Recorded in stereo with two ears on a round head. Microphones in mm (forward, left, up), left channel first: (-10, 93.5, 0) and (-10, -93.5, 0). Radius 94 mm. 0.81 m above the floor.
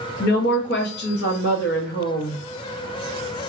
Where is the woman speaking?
55° left (ahead or behind), 0.8 m.